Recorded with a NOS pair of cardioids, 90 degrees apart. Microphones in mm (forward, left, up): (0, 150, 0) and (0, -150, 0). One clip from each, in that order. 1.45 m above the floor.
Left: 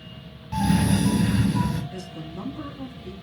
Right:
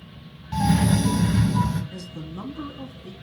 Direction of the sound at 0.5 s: 5° right.